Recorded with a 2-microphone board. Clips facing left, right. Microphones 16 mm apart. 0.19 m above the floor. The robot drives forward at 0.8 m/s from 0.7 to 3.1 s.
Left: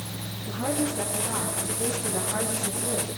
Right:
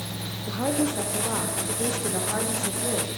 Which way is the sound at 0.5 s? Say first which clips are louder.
Right 2 dB; 55° right (ahead or behind).